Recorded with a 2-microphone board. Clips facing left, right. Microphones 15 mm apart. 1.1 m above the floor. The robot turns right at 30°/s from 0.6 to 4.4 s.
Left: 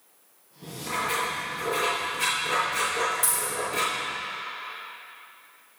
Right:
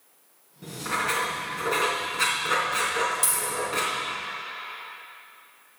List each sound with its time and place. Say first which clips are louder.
0.6 s writing: right 2 dB; 115° right, 4 m; by 4.1 s 10° right, 4 m
3.2 s a dropped coin: even; 40° right (ahead or behind), 3 m; by 3.5 s 30° right (ahead or behind), 3 m